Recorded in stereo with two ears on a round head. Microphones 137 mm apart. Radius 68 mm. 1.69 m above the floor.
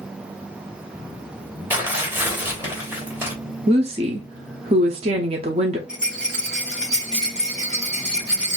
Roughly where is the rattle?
Centre.